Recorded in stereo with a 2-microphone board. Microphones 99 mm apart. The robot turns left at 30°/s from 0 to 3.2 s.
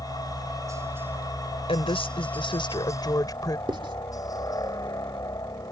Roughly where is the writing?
Right.